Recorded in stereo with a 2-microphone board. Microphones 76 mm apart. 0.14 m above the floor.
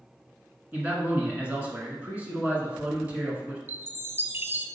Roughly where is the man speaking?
Centre.